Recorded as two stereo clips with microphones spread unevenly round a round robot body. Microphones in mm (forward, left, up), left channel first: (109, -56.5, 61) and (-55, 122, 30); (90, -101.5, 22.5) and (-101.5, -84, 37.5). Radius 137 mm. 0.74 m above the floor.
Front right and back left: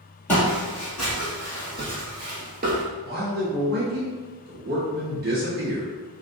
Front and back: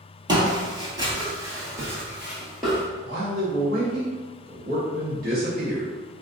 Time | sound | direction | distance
0.3 | footsteps | 125° right | 1.2 m
3.0 | a man speaking | 155° left | 1.4 m